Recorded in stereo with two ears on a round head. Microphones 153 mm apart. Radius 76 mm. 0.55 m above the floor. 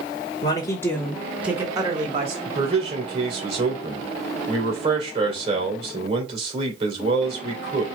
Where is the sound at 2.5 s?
40° right (ahead or behind), 2.5 m.